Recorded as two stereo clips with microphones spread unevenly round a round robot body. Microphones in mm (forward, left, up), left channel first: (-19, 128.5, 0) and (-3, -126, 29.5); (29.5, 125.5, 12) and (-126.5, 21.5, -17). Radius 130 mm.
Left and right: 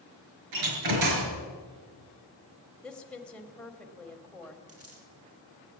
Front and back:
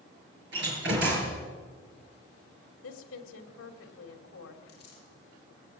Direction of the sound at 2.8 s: 10° left.